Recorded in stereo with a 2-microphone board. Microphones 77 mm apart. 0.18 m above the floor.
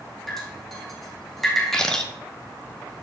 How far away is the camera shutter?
About 1.2 m.